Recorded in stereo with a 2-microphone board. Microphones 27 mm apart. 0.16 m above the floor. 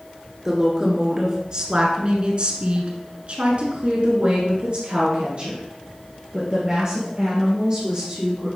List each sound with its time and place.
0.5 s a woman speaking: 20° right (ahead or behind), 2.0 m; by 8.5 s 30° right (ahead or behind), 3.5 m